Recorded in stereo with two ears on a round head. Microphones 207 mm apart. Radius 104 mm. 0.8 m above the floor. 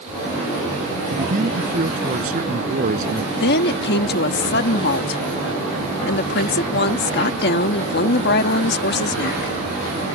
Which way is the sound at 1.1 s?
35° right (ahead or behind).